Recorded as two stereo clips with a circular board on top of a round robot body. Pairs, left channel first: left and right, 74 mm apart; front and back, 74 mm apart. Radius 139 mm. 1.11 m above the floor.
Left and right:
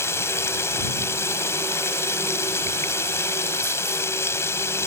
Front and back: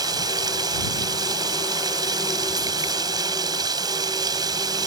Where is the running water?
145° left.